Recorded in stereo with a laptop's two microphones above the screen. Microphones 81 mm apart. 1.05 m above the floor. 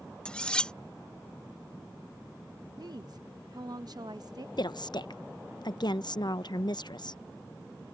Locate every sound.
0.2 s cutlery clinking: 15° left (ahead or behind)
2.8 s a woman speaking: 60° right (ahead or behind)
4.6 s a woman speaking: 65° left (ahead or behind)